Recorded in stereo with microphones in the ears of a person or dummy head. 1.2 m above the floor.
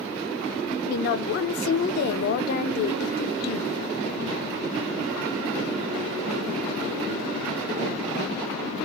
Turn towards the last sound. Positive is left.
turn(degrees=50)  # may be behind; listen again after turning